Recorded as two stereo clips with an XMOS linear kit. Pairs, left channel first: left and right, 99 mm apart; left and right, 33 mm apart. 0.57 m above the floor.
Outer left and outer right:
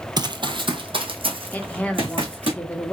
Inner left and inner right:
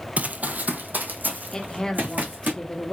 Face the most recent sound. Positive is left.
turn(degrees=15)  # may be behind; listen again after turning